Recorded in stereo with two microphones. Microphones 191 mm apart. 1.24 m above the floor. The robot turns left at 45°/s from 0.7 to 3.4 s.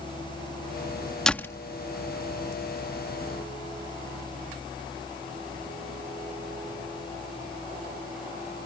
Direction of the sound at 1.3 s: 5° left (ahead or behind).